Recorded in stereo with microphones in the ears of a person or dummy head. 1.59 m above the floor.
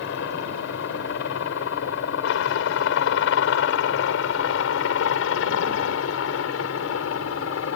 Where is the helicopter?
70° left (ahead or behind); by 7.8 s 75° left (ahead or behind).